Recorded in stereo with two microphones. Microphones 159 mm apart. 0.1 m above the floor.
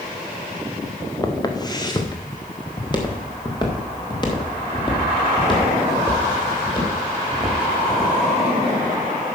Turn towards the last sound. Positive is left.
turn(degrees=30)  # may be behind; listen again after turning